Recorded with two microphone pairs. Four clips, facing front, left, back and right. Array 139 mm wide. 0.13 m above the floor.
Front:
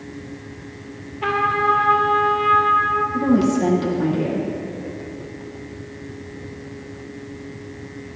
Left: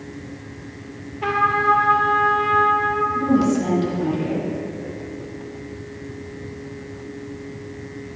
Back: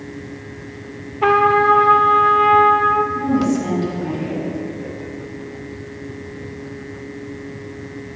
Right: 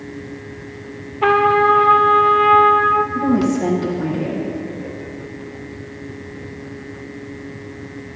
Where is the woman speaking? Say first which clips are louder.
Right 1 dB, front 1 dB; 10° right, 3.5 m.